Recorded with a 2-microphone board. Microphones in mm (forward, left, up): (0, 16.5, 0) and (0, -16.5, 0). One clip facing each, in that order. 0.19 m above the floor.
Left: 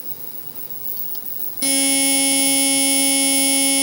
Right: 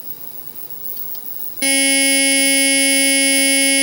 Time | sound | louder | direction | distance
1.6 | a buzzer | right 5 dB | 40° right (ahead or behind) | 1.3 m